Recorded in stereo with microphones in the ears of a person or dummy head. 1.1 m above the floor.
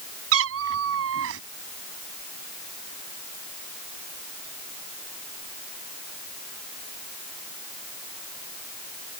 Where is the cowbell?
No cowbell in this recording.